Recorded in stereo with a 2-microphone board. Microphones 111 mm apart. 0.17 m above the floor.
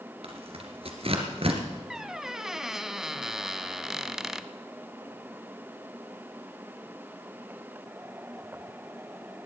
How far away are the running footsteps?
No running footsteps in this recording.